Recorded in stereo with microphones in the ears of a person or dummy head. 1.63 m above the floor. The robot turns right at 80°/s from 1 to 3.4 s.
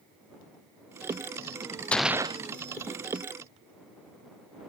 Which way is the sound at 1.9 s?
170° left.